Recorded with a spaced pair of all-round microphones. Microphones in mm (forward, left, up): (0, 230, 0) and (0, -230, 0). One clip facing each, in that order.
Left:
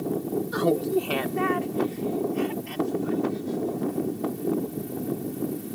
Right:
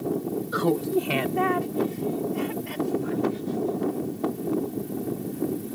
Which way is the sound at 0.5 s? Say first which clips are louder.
Even; 10° left (ahead or behind).